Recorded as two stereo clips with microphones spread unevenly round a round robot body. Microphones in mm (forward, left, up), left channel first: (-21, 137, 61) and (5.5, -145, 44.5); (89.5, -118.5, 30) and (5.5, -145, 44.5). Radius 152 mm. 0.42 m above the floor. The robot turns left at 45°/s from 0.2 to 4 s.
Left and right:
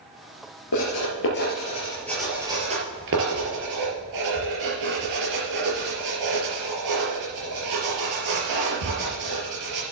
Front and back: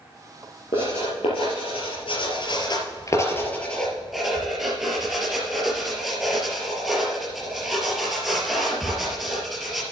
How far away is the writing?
About 4 m.